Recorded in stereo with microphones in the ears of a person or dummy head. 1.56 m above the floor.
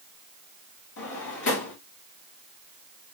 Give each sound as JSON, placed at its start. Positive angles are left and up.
{"t": 1.0, "sound": "a drawer", "side_deg": 75, "distance_m": 3.0}